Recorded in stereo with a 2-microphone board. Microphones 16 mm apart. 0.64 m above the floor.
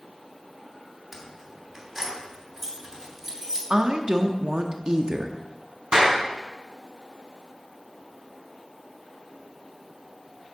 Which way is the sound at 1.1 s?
25° right (ahead or behind).